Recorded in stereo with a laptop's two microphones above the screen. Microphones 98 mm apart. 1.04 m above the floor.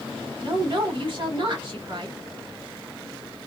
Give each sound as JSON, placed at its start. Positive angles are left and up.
{"t": 0.4, "sound": "a woman speaking", "side_deg": -55, "distance_m": 1.7}